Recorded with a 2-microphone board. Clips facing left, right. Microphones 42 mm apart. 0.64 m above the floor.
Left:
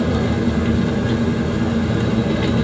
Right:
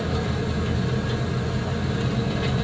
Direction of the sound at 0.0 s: 75° left (ahead or behind).